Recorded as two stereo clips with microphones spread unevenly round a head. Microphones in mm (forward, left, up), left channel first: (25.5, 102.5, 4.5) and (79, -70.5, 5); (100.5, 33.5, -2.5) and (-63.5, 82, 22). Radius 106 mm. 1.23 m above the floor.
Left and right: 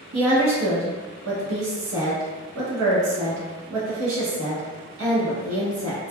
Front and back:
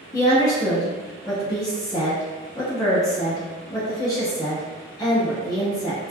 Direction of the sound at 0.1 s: 90° right.